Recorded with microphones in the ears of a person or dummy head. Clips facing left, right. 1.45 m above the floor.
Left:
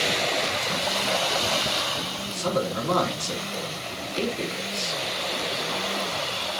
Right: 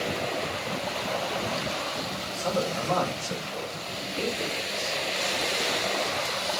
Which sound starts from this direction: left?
A man speaking, at 2.2 s.